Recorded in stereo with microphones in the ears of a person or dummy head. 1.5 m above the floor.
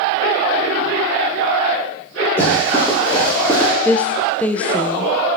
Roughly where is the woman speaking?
Centre.